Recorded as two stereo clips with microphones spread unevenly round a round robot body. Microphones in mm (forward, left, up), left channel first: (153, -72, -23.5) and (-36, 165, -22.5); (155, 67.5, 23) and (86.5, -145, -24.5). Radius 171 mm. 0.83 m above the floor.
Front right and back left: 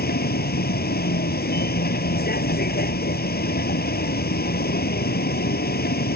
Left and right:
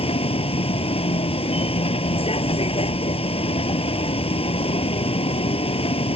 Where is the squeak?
No squeak in this recording.